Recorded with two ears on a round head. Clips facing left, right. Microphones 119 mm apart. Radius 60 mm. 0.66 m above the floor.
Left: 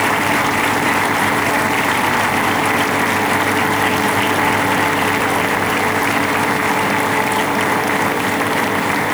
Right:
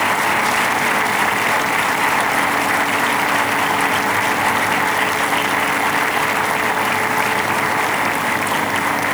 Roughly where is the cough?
No cough in this recording.